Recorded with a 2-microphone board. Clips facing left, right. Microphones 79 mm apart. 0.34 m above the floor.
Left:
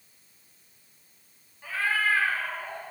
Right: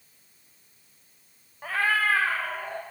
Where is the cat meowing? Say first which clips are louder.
Right 2 dB; 60° right (ahead or behind), 0.8 m; by 2.8 s 70° right (ahead or behind), 1.8 m.